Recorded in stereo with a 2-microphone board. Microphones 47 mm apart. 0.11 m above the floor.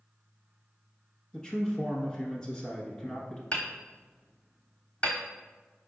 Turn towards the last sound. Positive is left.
turn(degrees=25)  # may be behind; listen again after turning